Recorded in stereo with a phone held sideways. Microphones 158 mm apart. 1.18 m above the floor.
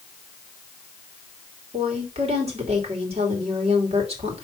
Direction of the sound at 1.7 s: 40° right (ahead or behind).